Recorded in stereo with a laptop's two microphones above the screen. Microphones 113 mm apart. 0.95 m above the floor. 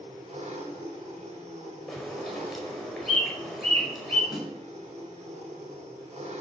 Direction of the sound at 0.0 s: 75° right (ahead or behind).